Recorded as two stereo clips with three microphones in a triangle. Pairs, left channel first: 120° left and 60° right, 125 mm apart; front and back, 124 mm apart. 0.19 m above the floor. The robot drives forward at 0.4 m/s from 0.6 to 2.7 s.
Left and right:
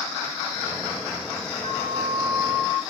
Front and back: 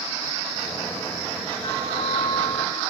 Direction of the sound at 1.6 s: 60° right.